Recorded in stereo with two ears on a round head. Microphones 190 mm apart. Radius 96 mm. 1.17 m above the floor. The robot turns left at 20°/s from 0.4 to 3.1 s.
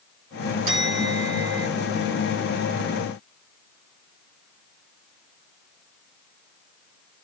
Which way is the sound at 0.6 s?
60° right (ahead or behind).